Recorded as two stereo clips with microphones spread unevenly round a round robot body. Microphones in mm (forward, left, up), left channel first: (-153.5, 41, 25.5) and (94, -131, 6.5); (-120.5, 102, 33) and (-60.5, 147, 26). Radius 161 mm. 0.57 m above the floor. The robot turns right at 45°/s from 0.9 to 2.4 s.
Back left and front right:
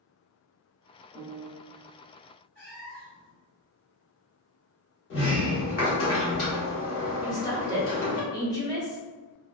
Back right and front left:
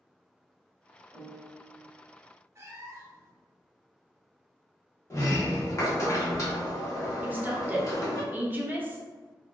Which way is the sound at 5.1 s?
Straight behind.